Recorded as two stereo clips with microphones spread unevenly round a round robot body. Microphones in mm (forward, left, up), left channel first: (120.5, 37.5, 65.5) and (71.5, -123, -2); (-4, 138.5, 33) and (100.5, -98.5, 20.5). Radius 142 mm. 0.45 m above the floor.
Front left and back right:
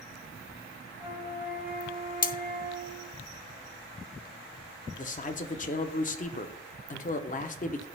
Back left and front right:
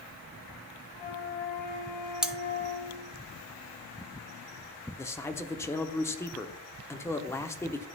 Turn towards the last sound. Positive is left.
turn(degrees=40)